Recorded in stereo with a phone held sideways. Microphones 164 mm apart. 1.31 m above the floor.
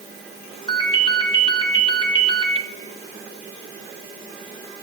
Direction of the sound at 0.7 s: 30° left (ahead or behind).